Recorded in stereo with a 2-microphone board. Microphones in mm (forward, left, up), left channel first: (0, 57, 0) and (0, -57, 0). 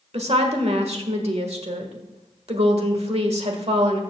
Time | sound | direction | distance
0.1 | a woman speaking | 60° right (ahead or behind) | 1.5 m